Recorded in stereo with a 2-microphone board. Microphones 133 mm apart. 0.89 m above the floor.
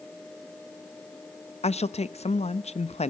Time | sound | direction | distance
1.6 | a woman speaking | 55° left (ahead or behind) | 0.7 m